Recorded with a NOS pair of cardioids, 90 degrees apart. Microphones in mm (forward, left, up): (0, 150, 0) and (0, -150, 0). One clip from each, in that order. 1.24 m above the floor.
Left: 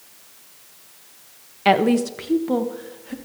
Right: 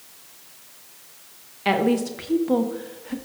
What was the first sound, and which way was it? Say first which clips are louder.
A woman speaking: left 4 dB; 30° left.